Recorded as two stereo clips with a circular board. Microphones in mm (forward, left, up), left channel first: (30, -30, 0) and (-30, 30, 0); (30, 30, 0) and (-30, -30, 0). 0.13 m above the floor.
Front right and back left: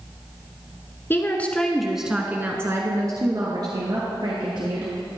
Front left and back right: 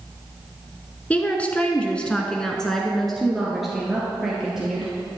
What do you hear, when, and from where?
1.1 s a woman speaking: 15° right, 1.2 m; by 4.9 s 140° left, 2.5 m